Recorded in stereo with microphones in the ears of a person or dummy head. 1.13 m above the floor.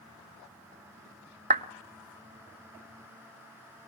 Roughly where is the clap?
Right.